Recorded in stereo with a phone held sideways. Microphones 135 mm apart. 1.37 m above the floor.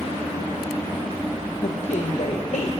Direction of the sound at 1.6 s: 65° left (ahead or behind).